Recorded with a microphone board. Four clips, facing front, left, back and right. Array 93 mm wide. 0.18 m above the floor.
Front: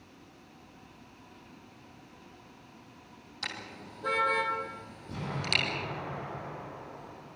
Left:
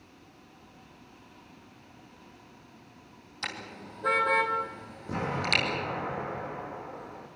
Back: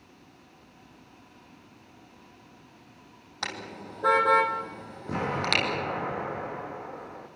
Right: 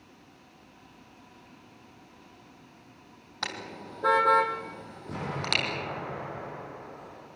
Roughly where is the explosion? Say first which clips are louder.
Left 3 dB, back 8 dB; behind.